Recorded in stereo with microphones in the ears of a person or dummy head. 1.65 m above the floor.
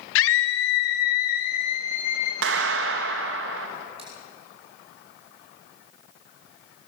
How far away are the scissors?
About 6 m.